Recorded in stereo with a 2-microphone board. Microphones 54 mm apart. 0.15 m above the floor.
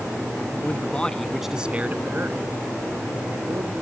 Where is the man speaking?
35° left (ahead or behind); by 3.7 s 70° right (ahead or behind).